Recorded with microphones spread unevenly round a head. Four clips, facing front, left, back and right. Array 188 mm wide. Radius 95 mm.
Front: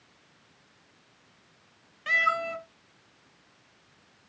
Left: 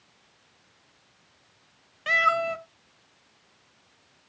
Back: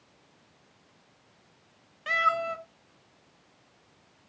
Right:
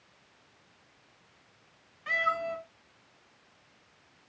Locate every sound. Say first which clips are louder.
2.1 s a cat meowing: left 6 dB, back 1 dB; 90° left, 1.9 m